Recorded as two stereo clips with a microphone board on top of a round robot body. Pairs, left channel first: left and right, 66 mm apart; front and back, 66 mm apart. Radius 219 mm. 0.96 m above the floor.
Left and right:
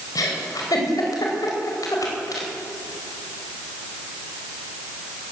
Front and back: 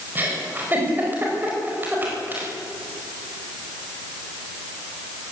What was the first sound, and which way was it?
A giggle, 120° left.